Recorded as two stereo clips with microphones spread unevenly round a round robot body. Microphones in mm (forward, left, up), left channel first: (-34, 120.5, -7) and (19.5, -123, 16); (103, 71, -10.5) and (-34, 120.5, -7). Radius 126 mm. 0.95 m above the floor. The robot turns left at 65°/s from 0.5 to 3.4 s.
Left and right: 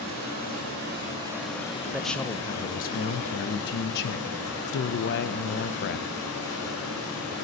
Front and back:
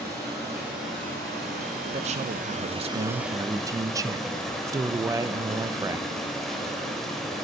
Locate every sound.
0.0 s running water: 105° right, 3.5 m; by 7.4 s 70° left, 3.5 m
1.9 s a man speaking: 165° right, 0.5 m; by 6.1 s 100° left, 0.5 m